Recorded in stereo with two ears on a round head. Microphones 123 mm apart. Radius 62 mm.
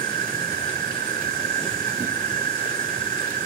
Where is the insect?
65° right (ahead or behind).